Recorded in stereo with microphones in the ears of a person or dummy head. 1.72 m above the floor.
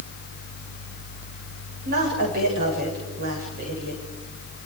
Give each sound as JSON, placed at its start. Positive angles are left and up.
{"t": 1.9, "sound": "a woman speaking", "side_deg": -55, "distance_m": 7.5}